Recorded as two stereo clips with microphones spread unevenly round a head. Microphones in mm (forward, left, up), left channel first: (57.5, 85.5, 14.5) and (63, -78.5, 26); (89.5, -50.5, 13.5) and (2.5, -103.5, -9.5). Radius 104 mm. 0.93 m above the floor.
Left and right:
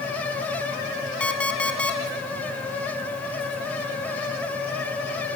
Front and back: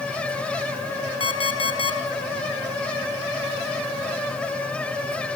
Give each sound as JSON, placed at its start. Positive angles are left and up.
{"t": 1.2, "sound": "an alarm clock", "azimuth_deg": 5, "distance_m": 2.0}